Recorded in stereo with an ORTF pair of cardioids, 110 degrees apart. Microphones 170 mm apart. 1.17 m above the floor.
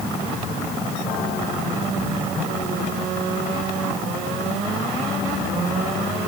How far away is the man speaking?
No man speaking in this recording.